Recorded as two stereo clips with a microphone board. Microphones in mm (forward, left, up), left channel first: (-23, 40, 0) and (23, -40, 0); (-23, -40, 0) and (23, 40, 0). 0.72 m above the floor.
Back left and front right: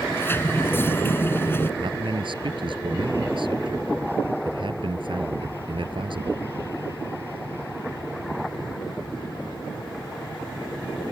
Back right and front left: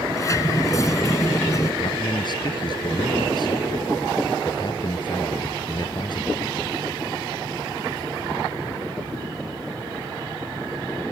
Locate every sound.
0.1 s a sliding door: 175° right
1.8 s a man speaking: 85° right